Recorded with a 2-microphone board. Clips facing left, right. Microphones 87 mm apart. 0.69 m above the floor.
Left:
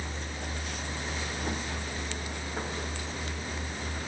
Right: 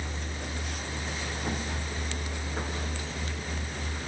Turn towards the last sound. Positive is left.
No sound to turn to.